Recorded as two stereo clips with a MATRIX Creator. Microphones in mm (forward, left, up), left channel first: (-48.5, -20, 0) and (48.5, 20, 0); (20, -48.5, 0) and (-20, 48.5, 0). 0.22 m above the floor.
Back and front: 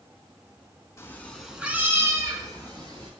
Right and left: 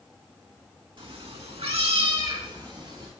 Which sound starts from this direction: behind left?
A cat meowing, at 1.0 s.